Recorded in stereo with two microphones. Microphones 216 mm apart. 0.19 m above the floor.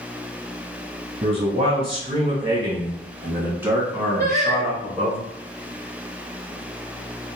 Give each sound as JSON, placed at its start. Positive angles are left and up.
{"t": 1.2, "sound": "a man speaking", "side_deg": -30, "distance_m": 1.3}
{"t": 4.2, "sound": "singing", "side_deg": -45, "distance_m": 0.5}